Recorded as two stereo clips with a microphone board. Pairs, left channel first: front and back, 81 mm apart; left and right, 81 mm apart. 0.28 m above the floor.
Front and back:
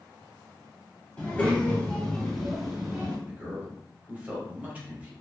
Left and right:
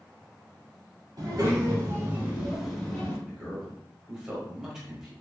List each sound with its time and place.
1.2 s a child speaking: 70° right, 1.2 m; by 3.2 s 120° left, 0.8 m
3.3 s a man speaking: 165° right, 0.9 m